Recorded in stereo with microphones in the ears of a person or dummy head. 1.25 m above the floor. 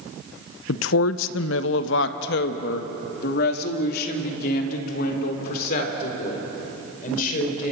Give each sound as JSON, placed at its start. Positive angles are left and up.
{"t": 0.7, "sound": "a woman speaking", "side_deg": 70, "distance_m": 0.7}